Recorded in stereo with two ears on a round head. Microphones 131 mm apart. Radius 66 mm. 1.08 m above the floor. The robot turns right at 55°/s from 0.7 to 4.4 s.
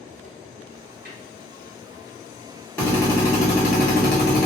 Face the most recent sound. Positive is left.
turn(degrees=100)